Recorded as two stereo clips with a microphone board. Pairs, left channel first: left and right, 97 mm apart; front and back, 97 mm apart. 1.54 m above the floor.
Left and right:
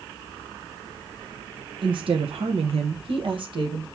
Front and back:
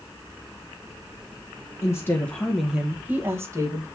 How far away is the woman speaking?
About 1.1 m.